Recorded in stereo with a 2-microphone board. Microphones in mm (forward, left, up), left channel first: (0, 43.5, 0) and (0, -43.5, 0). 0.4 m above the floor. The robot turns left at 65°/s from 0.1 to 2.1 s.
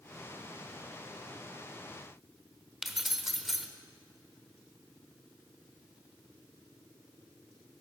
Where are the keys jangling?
5° right (ahead or behind), 1.0 m.